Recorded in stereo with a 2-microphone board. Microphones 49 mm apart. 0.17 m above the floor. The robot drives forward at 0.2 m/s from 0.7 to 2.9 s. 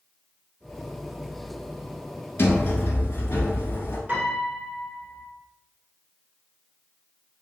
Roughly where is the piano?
Right.